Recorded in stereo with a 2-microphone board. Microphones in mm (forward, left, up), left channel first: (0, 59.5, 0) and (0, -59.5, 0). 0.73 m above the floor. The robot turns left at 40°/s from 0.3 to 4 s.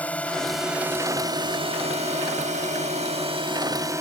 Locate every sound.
0.0 s a drone: 10° left (ahead or behind); by 4.0 s 20° right (ahead or behind)